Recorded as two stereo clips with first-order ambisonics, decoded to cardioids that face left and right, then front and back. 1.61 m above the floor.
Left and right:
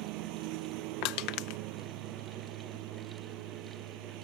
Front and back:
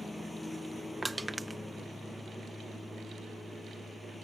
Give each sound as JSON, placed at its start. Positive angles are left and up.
{"t": 0.0, "sound": "a lawn mower", "azimuth_deg": -80}
{"t": 1.0, "sound": "crushing", "azimuth_deg": 100}